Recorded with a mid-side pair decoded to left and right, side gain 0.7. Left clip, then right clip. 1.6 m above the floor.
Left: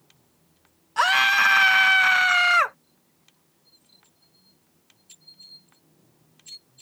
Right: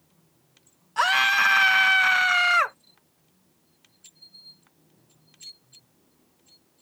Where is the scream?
5° left.